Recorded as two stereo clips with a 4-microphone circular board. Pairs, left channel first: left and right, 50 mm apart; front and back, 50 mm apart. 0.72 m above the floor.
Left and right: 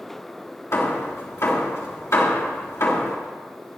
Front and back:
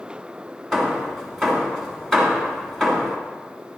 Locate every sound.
0.7 s hammering: 80° left, 3 m